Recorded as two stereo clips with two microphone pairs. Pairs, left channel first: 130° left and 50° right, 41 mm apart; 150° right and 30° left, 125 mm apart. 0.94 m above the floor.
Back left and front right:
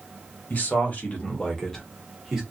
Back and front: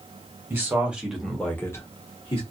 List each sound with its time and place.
0.5 s a man speaking: 100° left, 1.2 m; by 2.4 s 135° right, 1.0 m